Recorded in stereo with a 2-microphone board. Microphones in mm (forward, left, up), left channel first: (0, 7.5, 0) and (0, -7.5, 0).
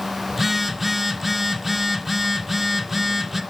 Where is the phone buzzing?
5° right (ahead or behind), 1.7 m.